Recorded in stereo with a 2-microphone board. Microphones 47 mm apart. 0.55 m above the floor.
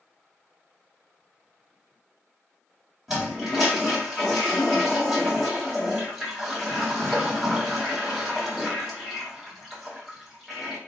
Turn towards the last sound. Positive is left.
turn(degrees=-5)  # may be behind; listen again after turning